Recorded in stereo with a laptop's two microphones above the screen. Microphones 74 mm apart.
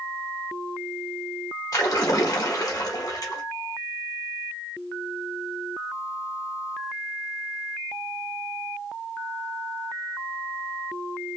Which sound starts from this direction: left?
A splash, at 1.7 s.